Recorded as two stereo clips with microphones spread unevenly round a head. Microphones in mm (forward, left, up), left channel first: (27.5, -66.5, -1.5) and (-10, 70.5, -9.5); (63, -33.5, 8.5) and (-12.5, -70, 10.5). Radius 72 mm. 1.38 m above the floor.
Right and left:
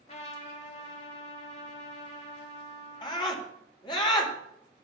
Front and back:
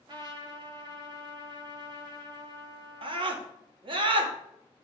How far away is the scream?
About 2.5 m.